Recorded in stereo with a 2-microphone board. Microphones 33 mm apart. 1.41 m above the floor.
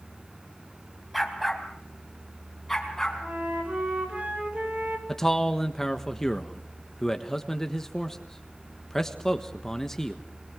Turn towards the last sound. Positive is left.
turn(degrees=15)  # may be behind; listen again after turning